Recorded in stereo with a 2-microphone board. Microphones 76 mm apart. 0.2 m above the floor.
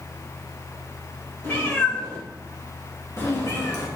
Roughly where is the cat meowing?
Left.